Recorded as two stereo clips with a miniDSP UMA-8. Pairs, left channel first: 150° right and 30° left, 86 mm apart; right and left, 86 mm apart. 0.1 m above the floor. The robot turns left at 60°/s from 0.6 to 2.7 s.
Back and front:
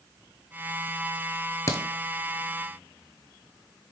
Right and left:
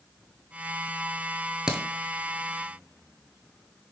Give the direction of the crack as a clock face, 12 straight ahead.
6 o'clock.